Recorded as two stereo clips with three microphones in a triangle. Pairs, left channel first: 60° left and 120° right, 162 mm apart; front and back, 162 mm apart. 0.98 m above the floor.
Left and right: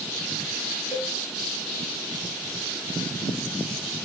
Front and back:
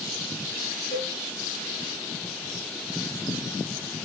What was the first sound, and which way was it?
A cowbell, straight ahead.